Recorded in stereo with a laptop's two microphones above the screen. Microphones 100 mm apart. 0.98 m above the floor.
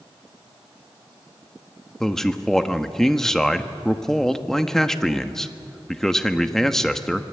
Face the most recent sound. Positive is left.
turn(degrees=5)  # may be behind; listen again after turning